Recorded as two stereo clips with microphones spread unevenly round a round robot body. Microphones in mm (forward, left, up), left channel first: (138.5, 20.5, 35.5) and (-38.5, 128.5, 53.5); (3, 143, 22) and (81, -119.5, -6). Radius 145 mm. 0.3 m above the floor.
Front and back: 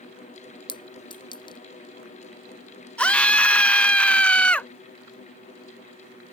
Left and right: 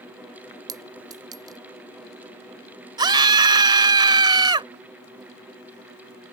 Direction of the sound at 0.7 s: 30° right.